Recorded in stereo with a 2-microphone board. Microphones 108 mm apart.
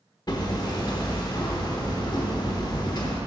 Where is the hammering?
40° left (ahead or behind), 0.9 m.